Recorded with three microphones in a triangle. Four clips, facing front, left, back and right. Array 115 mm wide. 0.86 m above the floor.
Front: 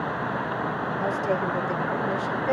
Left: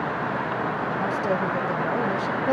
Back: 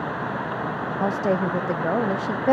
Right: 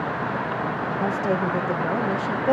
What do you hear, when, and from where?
1.0 s a woman speaking: 170° right, 1.2 m